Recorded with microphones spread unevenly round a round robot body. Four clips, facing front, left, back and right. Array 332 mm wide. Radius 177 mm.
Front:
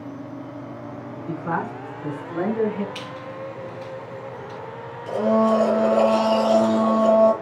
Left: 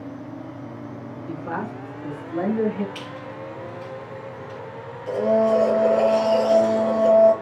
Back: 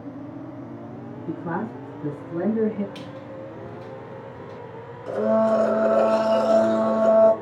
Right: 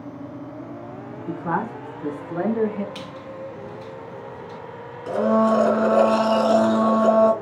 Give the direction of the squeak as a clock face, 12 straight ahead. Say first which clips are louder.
Even, front 3 dB; 5 o'clock.